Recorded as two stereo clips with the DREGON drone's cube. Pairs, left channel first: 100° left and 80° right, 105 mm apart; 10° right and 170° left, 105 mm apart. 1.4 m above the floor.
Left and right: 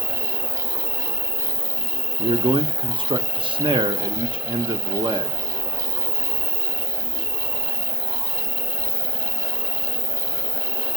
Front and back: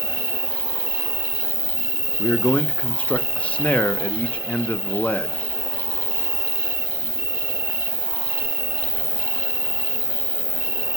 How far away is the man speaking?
About 0.5 m.